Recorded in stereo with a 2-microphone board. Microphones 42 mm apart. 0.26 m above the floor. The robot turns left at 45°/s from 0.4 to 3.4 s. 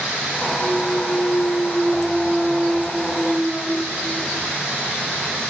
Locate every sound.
0.6 s a clunk: 85° left, 1.2 m; by 4.5 s 40° right, 1.2 m